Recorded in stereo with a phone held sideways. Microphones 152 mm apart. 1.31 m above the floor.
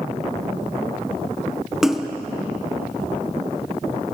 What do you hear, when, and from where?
1.8 s a splash: centre (ahead or behind), 0.7 m